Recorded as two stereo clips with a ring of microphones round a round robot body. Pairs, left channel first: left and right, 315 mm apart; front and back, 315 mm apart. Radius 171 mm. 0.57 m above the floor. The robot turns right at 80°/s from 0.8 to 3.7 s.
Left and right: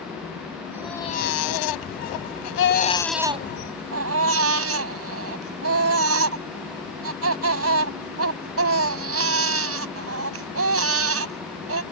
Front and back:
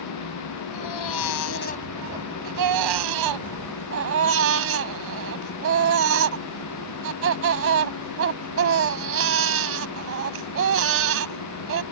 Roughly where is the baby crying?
Ahead.